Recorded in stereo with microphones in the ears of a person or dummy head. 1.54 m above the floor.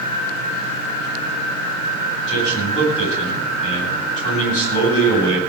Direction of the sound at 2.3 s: 40° left (ahead or behind).